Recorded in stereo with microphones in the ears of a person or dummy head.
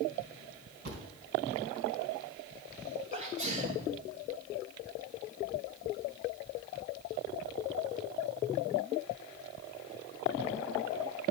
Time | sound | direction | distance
0.8 | a thud | 60° right (ahead or behind) | 3 m
3.1 | a sneeze | 50° right (ahead or behind) | 1.4 m